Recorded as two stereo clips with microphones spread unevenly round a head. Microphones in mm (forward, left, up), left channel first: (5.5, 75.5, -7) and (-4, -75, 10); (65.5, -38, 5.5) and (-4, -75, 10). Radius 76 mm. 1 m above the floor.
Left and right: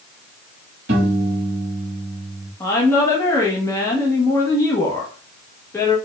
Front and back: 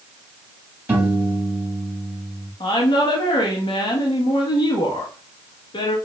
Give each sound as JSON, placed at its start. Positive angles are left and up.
{"t": 0.9, "sound": "a piano", "azimuth_deg": -85, "distance_m": 1.7}
{"t": 2.6, "sound": "a woman speaking", "azimuth_deg": 15, "distance_m": 1.1}